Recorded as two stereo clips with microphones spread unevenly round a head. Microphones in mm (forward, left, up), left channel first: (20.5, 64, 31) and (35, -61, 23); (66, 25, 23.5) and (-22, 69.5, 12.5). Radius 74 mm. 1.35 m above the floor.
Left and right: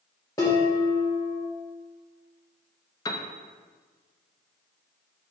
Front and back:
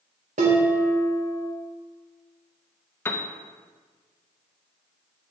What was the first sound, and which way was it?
Dishes clattering, 165° left.